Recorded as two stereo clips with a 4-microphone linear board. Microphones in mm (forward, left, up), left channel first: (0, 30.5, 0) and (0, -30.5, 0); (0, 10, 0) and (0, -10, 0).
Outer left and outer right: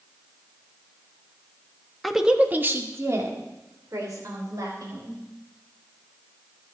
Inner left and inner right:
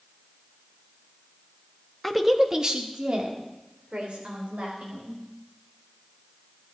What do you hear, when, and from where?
2.0 s a woman speaking: centre (ahead or behind), 1.3 m; by 5.2 s 75° right (ahead or behind), 5 m